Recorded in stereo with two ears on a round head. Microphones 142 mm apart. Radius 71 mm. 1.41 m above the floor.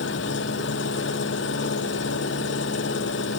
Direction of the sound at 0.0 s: 90° left.